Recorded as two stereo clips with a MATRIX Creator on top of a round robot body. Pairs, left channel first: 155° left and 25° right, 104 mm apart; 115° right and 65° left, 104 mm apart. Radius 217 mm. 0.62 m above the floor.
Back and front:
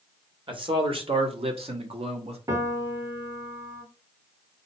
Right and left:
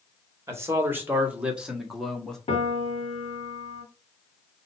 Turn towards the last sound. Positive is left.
turn(degrees=-80)